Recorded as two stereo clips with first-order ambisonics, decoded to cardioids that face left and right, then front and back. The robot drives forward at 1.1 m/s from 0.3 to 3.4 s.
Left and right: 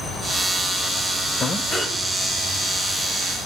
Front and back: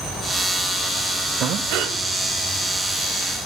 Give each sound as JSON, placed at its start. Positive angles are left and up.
{"t": 1.4, "sound": "breathing", "azimuth_deg": 150, "distance_m": 0.5}